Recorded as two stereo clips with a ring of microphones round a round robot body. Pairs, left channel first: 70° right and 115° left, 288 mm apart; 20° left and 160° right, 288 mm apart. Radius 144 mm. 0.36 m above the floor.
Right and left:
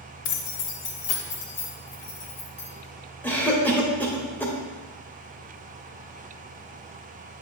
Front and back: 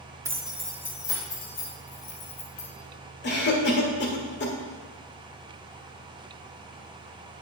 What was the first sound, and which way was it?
Keys jangling, 80° right.